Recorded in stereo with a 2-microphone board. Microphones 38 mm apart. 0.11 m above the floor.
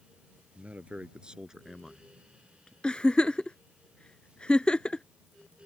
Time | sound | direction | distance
0.6 | a man speaking | 40° right (ahead or behind) | ?
2.8 | a giggle | 25° left (ahead or behind) | ?